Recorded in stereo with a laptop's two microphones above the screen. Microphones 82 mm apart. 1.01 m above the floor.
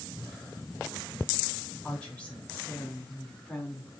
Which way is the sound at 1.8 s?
15° left (ahead or behind).